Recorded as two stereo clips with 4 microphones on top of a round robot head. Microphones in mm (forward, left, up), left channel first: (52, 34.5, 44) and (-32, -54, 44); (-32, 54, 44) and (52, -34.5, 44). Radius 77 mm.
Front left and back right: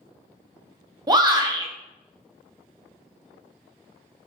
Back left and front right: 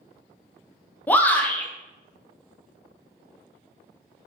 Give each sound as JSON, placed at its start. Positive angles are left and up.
{"t": 1.1, "sound": "a shout", "azimuth_deg": -160, "distance_m": 0.8}